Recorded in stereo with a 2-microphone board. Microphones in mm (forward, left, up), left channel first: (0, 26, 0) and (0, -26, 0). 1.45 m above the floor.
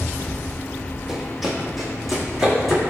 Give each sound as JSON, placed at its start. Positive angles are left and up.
{"t": 1.1, "sound": "running footsteps", "side_deg": -5, "distance_m": 2.5}